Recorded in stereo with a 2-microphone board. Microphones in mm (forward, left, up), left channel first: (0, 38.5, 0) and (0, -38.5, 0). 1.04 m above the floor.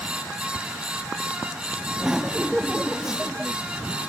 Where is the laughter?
10° right (ahead or behind).